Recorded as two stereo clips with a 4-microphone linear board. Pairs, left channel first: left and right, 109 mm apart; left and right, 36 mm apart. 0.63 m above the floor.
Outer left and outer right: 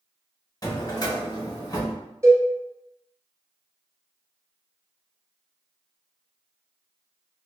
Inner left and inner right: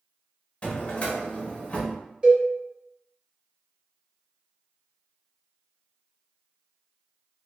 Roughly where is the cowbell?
Right.